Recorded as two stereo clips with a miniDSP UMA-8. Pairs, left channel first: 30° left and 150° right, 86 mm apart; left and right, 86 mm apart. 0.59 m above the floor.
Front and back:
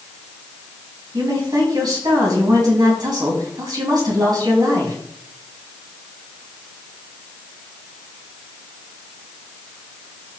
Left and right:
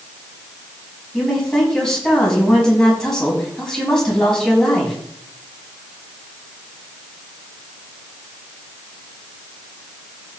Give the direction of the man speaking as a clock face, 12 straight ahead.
6 o'clock.